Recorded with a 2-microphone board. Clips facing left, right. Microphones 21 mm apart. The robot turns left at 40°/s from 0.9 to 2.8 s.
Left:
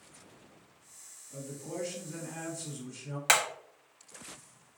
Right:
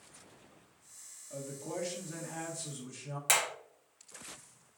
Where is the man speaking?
90° right, 1.1 m; by 3.2 s 150° right, 1.1 m.